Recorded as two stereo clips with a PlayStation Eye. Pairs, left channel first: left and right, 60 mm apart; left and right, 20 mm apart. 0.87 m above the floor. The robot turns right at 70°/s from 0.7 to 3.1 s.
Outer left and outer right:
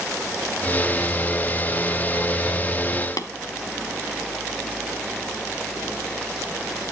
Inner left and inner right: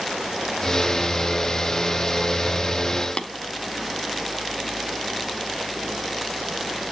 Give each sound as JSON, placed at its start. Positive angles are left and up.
{"t": 3.2, "sound": "tapping", "side_deg": 80, "distance_m": 0.7}